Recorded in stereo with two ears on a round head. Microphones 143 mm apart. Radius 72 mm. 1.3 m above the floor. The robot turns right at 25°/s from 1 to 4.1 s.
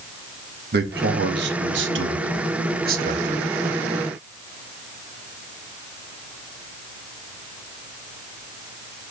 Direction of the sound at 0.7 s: 110° right.